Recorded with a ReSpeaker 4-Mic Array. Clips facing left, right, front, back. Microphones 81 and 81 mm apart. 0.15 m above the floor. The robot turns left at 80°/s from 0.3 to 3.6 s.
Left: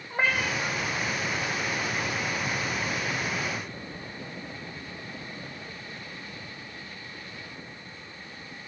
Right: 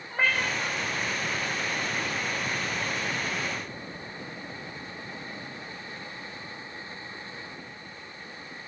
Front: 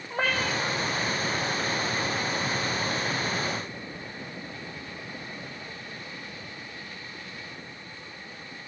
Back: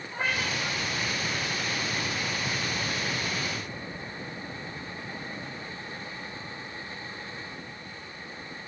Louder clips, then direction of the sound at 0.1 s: Even, front 3 dB; 15° left.